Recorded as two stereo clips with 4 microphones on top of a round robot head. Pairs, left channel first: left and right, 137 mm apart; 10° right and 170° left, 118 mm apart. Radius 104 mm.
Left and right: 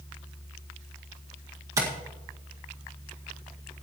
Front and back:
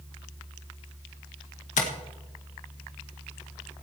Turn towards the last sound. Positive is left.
turn(degrees=-20)